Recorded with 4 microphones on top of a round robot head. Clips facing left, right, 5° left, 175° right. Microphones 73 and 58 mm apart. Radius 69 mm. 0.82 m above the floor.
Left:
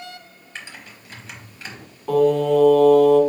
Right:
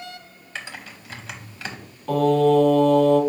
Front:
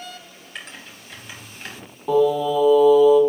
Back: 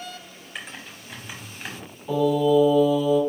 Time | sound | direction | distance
0.6 | typing on a keyboard | 85° right | 0.8 m
2.1 | singing | 10° left | 1.6 m